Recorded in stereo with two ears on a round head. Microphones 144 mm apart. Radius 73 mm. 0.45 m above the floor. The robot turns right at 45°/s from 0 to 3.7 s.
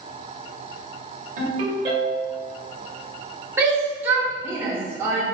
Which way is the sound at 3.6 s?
15° right (ahead or behind).